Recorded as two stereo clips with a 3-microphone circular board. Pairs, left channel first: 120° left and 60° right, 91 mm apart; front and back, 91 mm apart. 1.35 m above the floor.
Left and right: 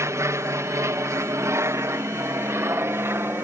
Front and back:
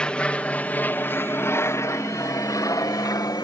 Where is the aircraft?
70° right; by 3.5 s 10° right.